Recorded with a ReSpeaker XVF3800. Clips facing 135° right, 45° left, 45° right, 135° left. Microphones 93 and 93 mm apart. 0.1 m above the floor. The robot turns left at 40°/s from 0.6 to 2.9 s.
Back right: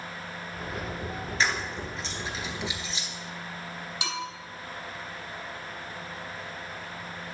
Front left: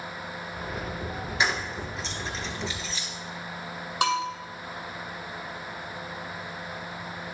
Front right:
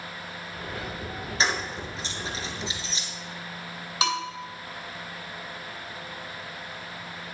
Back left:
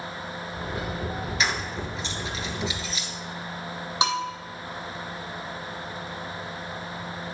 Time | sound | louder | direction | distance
1.4 | keys jangling | front left 1 dB, front right 3 dB | 20° right | 1.2 m
4.0 | a bell | front left 11 dB, back left 2 dB | 75° left | 2 m